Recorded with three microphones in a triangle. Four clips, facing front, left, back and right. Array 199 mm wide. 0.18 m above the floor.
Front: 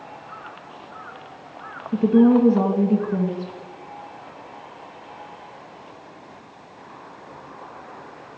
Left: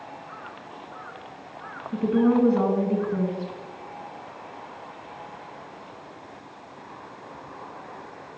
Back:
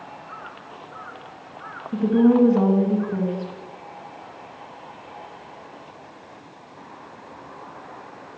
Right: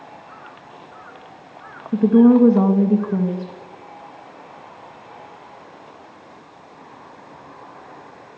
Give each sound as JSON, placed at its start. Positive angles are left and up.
{"t": 1.9, "sound": "a woman speaking", "azimuth_deg": -80, "distance_m": 2.0}